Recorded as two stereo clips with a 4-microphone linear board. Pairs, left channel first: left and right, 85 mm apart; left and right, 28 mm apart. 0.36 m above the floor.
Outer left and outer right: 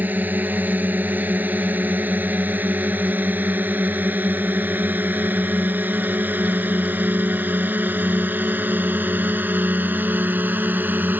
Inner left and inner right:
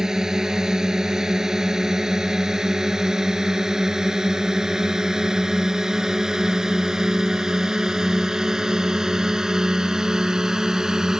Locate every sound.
0.0 s a drone: 20° right (ahead or behind)